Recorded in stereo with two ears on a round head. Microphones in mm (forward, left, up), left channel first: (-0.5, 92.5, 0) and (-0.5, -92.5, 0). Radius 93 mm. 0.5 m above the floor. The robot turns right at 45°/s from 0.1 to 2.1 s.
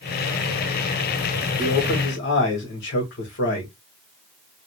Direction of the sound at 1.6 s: 40° left (ahead or behind).